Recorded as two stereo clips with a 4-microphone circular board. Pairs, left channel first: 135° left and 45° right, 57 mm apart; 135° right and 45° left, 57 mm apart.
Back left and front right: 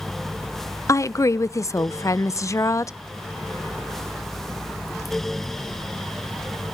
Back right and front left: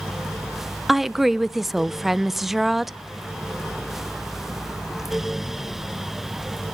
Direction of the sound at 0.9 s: 130° left.